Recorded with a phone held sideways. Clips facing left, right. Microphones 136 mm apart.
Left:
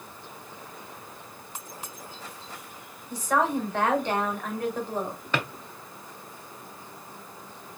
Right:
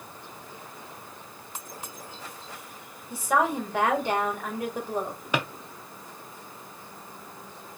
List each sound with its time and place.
3.1 s a woman speaking: 10° right (ahead or behind), 1.8 m
5.3 s a drawer: 15° right (ahead or behind), 0.6 m